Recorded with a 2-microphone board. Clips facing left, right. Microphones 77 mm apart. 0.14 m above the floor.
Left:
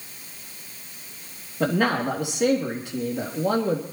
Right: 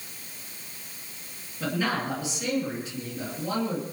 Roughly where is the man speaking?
Left.